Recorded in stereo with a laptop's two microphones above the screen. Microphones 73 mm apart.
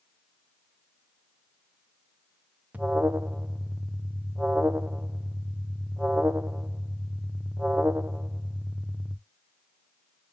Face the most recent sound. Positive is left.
turn(degrees=-20)  # may be behind; listen again after turning